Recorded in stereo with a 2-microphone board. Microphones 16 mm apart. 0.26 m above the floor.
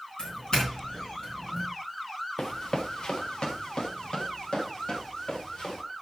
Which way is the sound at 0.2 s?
60° left (ahead or behind).